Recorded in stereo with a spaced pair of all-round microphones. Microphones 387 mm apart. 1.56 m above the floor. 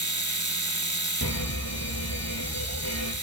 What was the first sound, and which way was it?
A machine running, 45° right (ahead or behind).